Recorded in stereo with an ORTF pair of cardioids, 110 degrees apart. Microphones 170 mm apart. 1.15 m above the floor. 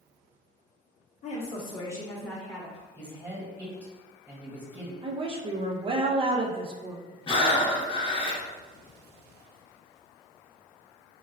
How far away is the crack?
No crack in this recording.